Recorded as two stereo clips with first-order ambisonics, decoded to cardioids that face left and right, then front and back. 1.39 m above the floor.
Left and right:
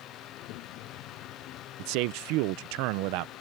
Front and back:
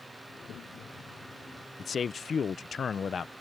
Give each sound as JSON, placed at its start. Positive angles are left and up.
{"t": 0.3, "sound": "a child speaking", "azimuth_deg": 55}
{"t": 1.8, "sound": "a man speaking", "azimuth_deg": -70}